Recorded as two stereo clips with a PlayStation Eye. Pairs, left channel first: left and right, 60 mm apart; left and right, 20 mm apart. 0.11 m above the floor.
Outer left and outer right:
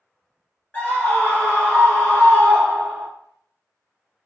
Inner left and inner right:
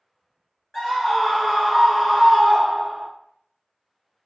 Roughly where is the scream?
Left.